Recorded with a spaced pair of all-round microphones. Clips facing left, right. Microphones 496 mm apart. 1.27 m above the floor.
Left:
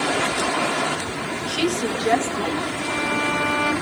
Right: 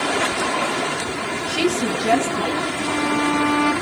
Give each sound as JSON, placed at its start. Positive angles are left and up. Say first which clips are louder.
{"t": 1.5, "sound": "a woman speaking", "louder": "right 2 dB", "side_deg": -45, "distance_m": 1.4}
{"t": 2.8, "sound": "a violin", "louder": "right 5 dB", "side_deg": -20, "distance_m": 2.5}